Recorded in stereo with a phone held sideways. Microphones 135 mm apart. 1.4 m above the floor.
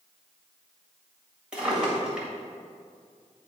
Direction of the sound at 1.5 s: 5° right (ahead or behind).